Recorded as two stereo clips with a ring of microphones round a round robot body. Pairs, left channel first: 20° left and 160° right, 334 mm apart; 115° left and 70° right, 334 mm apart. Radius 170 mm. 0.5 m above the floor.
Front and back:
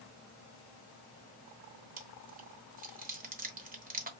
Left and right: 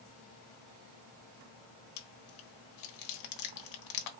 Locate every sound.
2.0 s chewing: 135° left, 1.3 m